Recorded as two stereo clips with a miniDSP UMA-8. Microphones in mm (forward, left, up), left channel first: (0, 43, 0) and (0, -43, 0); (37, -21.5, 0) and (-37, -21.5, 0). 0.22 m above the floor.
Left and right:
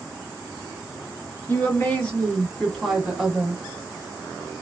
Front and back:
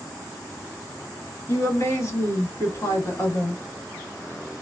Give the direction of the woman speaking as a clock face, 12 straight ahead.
11 o'clock.